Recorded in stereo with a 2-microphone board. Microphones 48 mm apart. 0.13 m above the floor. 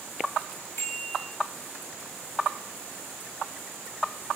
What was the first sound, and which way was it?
A bicycle bell, 60° left (ahead or behind).